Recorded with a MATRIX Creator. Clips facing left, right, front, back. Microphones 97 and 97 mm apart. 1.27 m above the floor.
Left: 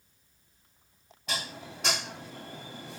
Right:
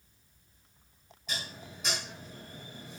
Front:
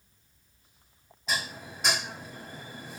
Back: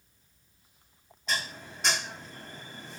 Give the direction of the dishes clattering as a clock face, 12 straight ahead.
9 o'clock.